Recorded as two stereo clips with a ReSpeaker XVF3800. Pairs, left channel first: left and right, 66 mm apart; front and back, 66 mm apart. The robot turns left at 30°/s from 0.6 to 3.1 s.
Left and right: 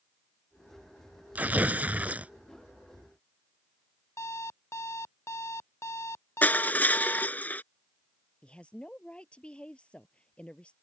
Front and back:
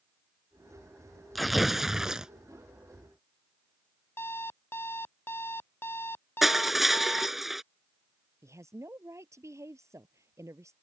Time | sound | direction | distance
1.4 | tearing paper | 85° right | ?
4.2 | an alarm clock | 50° left | ?
6.4 | crushing | 100° left | ?
8.4 | a woman speaking | 160° left | ?